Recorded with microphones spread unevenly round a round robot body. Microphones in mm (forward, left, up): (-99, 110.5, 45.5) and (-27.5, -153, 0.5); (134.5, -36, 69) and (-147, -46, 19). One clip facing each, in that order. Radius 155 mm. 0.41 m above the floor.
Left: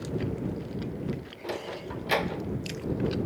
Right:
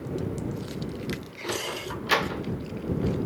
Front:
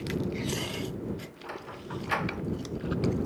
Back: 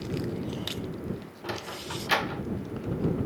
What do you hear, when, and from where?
1.4 s a sliding door: 145° right